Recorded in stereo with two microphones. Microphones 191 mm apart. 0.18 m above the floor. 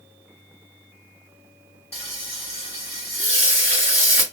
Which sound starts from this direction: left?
Frying, at 1.9 s.